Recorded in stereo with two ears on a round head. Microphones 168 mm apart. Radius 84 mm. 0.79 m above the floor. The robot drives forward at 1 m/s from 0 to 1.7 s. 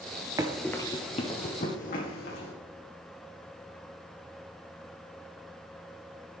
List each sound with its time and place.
0.4 s running footsteps: 20° right (ahead or behind), 0.8 m; by 2.5 s 60° left (ahead or behind), 2.5 m